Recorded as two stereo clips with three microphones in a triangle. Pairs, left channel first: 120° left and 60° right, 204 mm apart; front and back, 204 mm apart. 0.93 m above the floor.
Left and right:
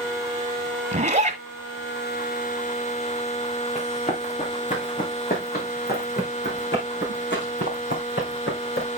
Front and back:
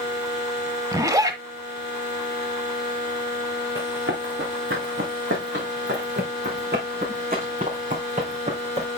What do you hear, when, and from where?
0.9 s a zipper: 110° right, 1.4 m
3.8 s running footsteps: straight behind, 4 m; by 8.9 s 125° left, 4 m